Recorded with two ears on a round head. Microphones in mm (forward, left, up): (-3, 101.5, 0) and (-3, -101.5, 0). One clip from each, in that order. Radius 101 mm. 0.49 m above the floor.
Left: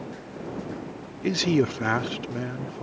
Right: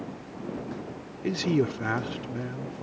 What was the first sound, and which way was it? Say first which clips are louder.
A man speaking: left 3 dB; 20° left (ahead or behind).